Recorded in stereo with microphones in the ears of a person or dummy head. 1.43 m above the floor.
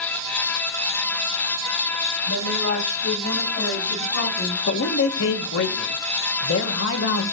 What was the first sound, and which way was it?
A woman speaking, 85° left.